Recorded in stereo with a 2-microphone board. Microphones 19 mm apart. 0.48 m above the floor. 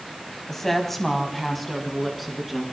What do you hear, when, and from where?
0.5 s a woman speaking: 20° left (ahead or behind), 3.5 m; by 2.6 s 5° left (ahead or behind), 5.5 m